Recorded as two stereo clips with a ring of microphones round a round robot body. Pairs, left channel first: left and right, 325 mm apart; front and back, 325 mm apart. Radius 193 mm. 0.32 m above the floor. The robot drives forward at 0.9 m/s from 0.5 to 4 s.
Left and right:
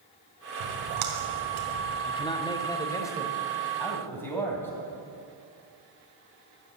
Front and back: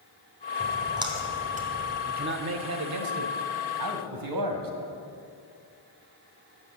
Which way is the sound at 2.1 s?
145° left.